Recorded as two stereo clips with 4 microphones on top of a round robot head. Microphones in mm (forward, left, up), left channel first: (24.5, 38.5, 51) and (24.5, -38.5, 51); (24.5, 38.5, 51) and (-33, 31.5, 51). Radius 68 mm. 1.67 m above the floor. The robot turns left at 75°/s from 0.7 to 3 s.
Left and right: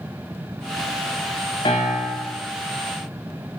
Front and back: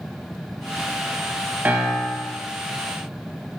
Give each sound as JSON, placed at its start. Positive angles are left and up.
{"t": 1.6, "sound": "a piano", "azimuth_deg": 130, "distance_m": 2.0}